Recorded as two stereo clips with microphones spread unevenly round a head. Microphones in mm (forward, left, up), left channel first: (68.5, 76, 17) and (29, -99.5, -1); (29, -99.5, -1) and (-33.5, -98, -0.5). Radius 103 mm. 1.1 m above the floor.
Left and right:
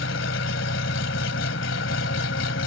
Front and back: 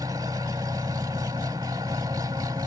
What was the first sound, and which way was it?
An engine running, 115° left.